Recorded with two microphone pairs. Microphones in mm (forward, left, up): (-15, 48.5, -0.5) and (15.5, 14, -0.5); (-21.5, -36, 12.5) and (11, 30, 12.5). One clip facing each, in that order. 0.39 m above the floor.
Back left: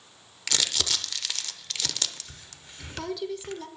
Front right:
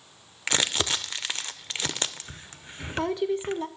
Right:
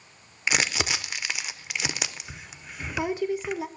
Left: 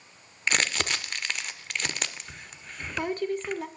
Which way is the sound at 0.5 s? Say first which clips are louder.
Front right 3 dB, right 1 dB; 45° right.